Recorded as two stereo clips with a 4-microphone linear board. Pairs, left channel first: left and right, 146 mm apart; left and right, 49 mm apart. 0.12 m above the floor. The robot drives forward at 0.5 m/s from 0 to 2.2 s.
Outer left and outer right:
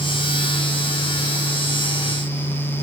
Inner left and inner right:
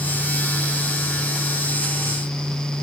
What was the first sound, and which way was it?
Only background noise.